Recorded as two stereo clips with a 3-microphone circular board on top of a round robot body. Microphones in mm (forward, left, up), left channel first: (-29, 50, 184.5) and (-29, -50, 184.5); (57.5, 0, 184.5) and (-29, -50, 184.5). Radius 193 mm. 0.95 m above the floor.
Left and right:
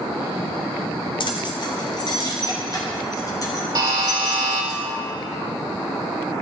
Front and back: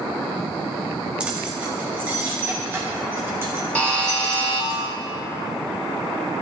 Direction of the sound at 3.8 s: 45° right.